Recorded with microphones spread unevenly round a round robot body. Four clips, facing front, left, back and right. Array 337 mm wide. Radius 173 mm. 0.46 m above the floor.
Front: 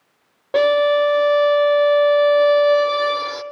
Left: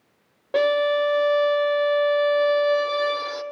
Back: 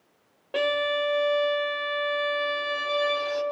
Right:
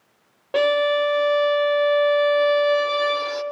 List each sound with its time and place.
0.5 s a violin: 10° right, 0.6 m